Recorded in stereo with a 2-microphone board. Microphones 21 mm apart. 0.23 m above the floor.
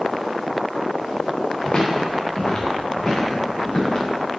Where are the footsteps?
40° left (ahead or behind), 2 m.